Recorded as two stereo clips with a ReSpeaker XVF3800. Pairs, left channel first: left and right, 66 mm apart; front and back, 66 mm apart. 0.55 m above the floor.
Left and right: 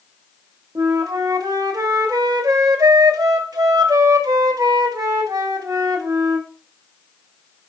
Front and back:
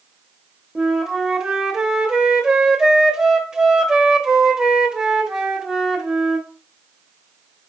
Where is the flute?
100° right, 0.6 m.